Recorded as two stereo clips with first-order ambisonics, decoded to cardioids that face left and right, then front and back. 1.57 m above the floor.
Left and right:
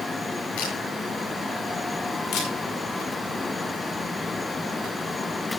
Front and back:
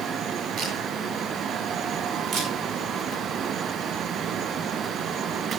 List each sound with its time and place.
0.6 s a camera shutter: 120° left, 9 m
2.3 s a camera shutter: 125° left, 5.5 m